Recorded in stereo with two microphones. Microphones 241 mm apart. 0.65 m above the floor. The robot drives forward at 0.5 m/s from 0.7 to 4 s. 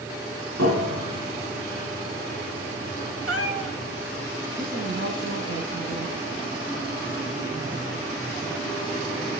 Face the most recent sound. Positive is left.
turn(degrees=-80)